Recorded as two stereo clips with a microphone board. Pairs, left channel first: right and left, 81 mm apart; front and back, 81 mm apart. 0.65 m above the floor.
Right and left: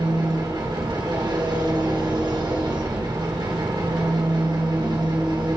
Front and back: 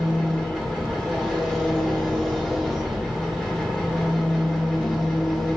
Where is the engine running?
95° left, 3 m.